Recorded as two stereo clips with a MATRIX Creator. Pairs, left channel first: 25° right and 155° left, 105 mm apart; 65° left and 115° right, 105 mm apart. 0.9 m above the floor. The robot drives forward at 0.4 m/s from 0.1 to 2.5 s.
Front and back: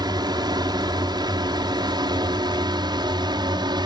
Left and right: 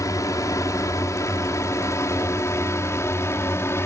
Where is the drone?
120° left; by 3.9 s 125° left.